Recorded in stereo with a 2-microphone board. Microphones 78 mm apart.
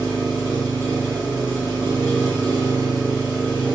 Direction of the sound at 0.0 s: 70° right (ahead or behind).